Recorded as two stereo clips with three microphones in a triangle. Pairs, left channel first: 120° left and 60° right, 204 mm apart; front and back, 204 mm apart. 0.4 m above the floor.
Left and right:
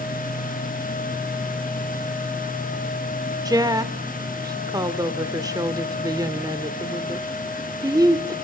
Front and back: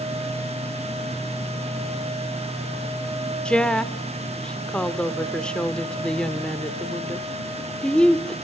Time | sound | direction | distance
3.5 | a woman speaking | 75° right | 0.7 m